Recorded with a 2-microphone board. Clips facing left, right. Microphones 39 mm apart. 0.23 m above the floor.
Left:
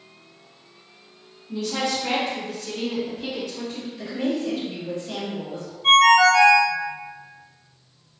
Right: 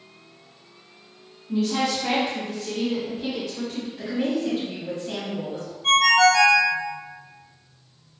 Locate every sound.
1.5 s a woman speaking: 25° right (ahead or behind), 1.5 m; by 3.9 s centre (ahead or behind), 1.9 m
4.0 s a woman speaking: 30° right (ahead or behind), 1.1 m
5.8 s a ringtone: 15° left (ahead or behind), 0.6 m